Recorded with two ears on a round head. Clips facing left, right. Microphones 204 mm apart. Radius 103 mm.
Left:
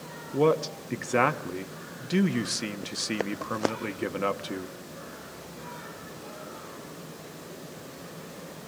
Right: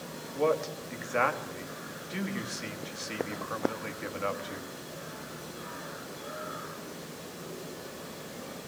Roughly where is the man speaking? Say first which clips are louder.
Left 5 dB; left.